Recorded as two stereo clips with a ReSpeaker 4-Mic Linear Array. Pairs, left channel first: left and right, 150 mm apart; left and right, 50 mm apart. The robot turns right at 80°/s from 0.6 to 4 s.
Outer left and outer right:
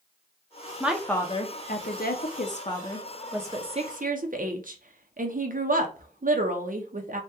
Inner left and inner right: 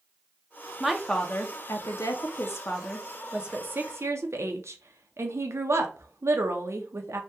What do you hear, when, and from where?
0.8 s a woman speaking: 15° right, 0.6 m; by 7.2 s 115° right, 0.6 m